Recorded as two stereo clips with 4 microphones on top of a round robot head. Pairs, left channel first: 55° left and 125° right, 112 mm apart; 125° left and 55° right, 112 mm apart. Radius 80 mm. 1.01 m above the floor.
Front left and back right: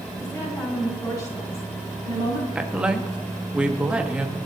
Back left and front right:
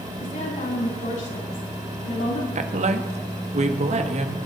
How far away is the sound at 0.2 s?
About 8.5 m.